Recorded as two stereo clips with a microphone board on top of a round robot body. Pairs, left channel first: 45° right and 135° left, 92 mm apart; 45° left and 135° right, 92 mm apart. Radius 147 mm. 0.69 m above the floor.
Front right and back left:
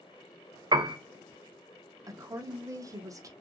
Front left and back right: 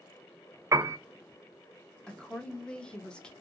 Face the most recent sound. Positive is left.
turn(degrees=120)